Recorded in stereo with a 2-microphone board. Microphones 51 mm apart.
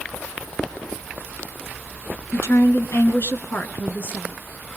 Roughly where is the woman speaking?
Left.